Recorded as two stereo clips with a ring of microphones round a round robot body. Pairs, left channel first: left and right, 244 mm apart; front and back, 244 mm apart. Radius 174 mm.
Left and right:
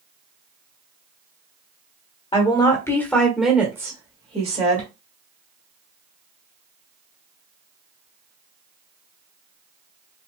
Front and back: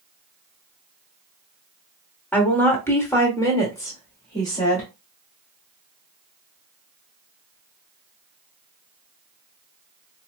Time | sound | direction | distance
2.3 | a woman speaking | 70° left | 1.4 m